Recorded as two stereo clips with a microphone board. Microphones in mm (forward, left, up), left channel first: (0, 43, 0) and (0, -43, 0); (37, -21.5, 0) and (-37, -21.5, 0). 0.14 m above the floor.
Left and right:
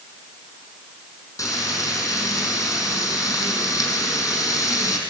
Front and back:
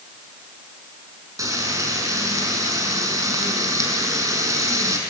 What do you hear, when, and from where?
1.4 s frying: 140° left, 6 m